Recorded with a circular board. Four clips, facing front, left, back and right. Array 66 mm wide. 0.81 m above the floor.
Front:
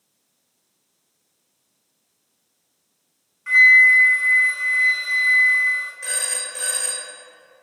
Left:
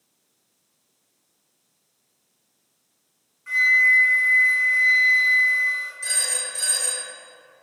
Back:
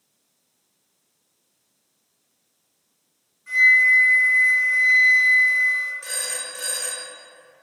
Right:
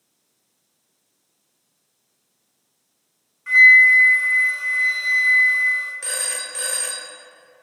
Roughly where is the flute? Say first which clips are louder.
Right 7 dB, front 4 dB; ahead right.